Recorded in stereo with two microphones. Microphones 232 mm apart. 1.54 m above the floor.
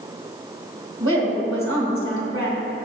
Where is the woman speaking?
65° right (ahead or behind), 2.5 m.